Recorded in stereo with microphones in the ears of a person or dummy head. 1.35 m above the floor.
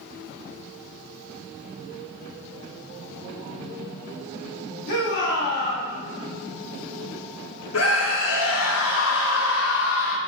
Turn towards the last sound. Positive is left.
turn(degrees=75)  # may be behind; listen again after turning